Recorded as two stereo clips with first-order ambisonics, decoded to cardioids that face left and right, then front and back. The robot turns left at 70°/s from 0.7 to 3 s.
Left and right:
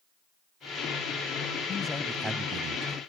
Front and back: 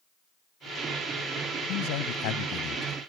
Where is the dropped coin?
No dropped coin in this recording.